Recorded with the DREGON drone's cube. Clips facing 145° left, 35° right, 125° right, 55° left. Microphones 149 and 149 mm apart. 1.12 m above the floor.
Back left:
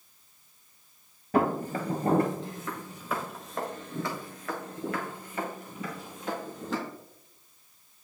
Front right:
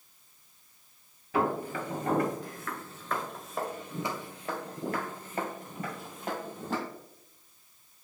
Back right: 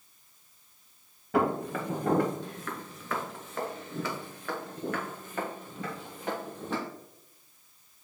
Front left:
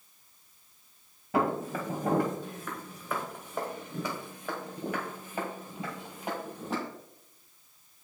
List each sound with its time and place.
1.3 s footsteps: 140° left, 1.5 m; by 6.8 s 20° right, 2 m